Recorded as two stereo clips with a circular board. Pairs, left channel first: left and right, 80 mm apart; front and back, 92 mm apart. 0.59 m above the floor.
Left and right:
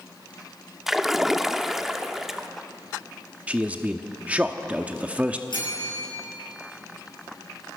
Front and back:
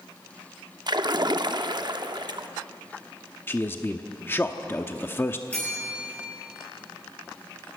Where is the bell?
75° left, 10 m.